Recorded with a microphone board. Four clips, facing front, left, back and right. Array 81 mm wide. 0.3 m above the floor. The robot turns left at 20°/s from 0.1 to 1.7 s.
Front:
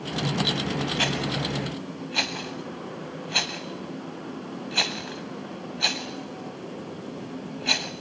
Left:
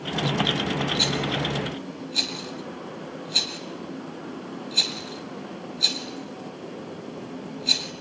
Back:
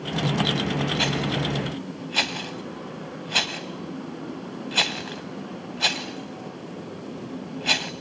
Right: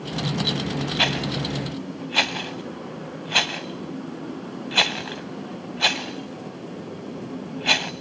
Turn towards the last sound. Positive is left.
turn(degrees=-100)